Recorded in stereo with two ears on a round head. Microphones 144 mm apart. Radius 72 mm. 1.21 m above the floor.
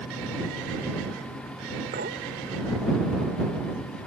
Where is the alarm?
No alarm in this recording.